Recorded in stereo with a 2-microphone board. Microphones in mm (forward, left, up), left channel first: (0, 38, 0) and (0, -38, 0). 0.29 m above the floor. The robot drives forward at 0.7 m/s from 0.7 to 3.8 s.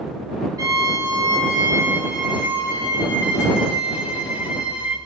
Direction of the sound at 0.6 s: 50° right (ahead or behind).